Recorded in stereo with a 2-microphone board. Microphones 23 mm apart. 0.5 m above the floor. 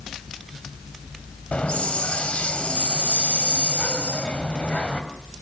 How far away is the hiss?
About 2.5 m.